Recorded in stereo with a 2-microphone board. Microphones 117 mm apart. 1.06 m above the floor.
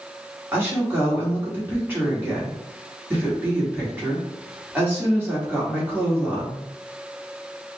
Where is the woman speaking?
15° right (ahead or behind), 1.8 m.